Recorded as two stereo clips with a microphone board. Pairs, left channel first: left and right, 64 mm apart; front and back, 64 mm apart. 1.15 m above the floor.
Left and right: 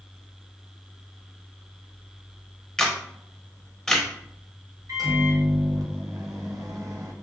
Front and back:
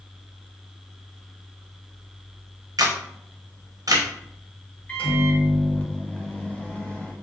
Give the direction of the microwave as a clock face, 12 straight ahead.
2 o'clock.